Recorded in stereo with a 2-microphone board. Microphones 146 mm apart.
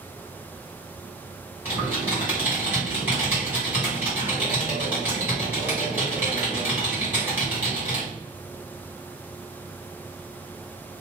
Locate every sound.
1.6 s typing on a keyboard: 10° right (ahead or behind), 1.8 m